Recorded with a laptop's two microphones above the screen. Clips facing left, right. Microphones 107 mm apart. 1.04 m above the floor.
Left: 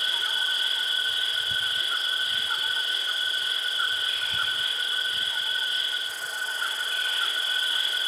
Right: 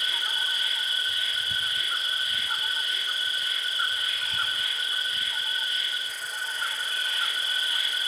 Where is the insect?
30° left (ahead or behind), 0.9 m.